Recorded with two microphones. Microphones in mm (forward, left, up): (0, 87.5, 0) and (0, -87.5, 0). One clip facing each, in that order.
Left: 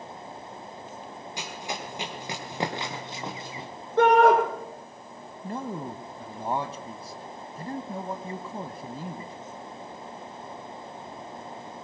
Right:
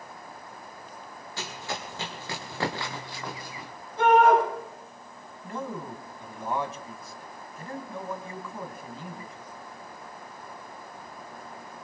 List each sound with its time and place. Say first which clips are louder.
1.4 s running footsteps: even; 15° left (ahead or behind), 5.5 m; by 3.7 s 25° left (ahead or behind), 2 m
4.0 s a shout: left 1 dB; 80° left, 7.5 m
5.4 s a man speaking: left 2 dB; 35° left (ahead or behind), 1.3 m